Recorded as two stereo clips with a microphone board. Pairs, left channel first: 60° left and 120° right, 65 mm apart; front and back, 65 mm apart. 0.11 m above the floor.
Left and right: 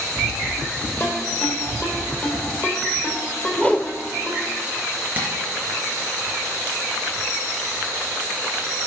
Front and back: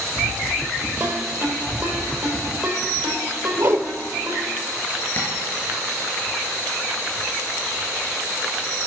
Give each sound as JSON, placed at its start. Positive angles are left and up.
{"t": 1.0, "sound": "a ringtone", "azimuth_deg": 120, "distance_m": 3.0}
{"t": 3.6, "sound": "a whoosh", "azimuth_deg": 130, "distance_m": 1.0}
{"t": 5.2, "sound": "tapping", "azimuth_deg": -55, "distance_m": 4.5}